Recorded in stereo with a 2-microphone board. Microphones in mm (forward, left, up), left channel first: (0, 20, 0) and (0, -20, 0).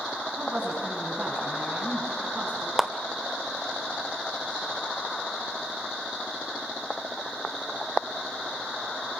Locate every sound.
0.4 s a woman speaking: 45° right (ahead or behind), 6 m
2.8 s a clap: 5° right (ahead or behind), 1.3 m